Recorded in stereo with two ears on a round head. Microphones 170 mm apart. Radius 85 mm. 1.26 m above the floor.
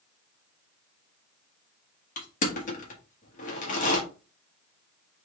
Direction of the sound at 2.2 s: 40° left (ahead or behind).